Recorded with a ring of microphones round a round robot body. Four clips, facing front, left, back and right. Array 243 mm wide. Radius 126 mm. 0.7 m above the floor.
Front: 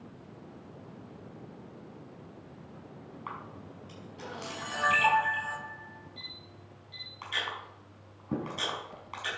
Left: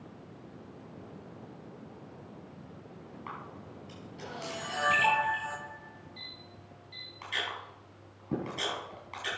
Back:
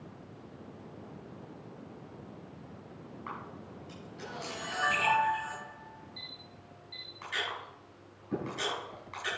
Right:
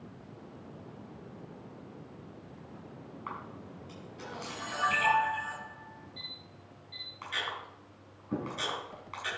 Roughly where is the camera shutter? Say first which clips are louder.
Right 2 dB, front 1 dB; ahead left.